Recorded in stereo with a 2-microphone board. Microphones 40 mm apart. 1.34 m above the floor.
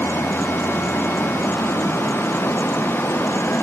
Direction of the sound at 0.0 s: 80° left.